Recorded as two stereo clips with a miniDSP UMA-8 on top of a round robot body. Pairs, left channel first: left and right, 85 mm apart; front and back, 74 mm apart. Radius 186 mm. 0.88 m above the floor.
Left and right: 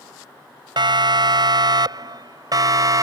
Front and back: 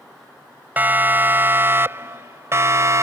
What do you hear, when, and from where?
0.8 s a siren: 115° right; by 3.0 s 135° right